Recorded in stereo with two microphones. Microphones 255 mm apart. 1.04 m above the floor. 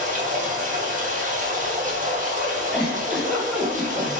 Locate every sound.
0.0 s running water: 30° right (ahead or behind), 0.7 m
2.7 s a giggle: centre (ahead or behind), 0.9 m